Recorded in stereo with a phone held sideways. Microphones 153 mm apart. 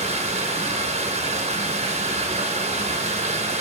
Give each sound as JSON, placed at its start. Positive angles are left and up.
{"t": 0.0, "sound": "running water", "side_deg": -45, "distance_m": 0.8}